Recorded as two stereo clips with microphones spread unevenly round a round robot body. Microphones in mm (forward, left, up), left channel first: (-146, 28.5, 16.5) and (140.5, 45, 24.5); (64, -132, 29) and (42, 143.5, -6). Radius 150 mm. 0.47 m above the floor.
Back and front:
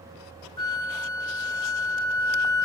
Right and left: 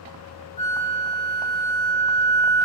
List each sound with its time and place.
0.6 s a flute: 130° right, 0.6 m